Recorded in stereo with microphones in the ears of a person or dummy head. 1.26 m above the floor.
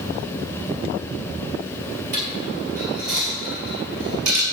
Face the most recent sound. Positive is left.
turn(degrees=-55)  # may be behind; listen again after turning